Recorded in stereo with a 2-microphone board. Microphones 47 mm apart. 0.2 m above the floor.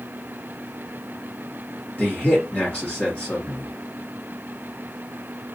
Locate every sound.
2.0 s a man speaking: 30° left (ahead or behind), 2.5 m